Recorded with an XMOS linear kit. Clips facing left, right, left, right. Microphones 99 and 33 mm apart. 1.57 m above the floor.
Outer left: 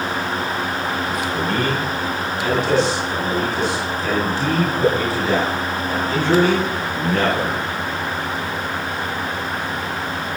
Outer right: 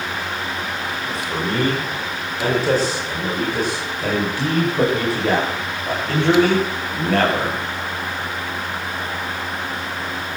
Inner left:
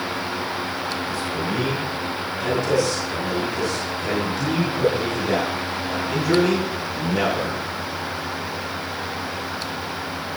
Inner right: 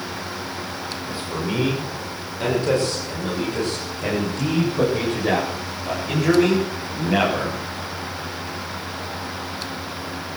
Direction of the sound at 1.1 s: 30° right (ahead or behind).